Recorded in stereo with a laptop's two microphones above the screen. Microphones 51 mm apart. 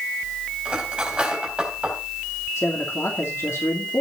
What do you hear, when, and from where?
0.7 s cutlery clinking: 20° right (ahead or behind), 4 m
2.6 s a man speaking: 65° left (ahead or behind), 2.5 m